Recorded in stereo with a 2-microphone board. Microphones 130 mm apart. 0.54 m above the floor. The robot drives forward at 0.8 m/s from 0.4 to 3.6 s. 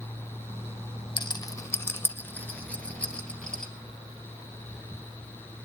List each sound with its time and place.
1.2 s a rattle: 40° left (ahead or behind), 0.5 m; by 3.7 s 10° left (ahead or behind), 2.5 m